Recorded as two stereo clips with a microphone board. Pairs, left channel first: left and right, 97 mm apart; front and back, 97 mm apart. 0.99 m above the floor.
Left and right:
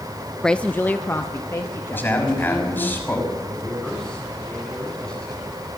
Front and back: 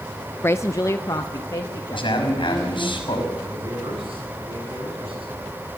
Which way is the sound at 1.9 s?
25° left.